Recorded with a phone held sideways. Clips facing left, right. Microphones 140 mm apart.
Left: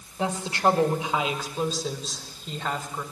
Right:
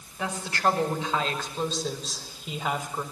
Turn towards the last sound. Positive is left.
turn(degrees=-15)  # may be behind; listen again after turning